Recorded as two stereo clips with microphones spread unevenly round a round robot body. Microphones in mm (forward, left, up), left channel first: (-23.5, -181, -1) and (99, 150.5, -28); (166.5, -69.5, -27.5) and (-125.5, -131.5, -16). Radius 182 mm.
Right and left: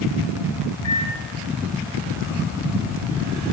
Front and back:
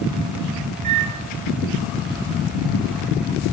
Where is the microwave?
165° left, 1.1 m.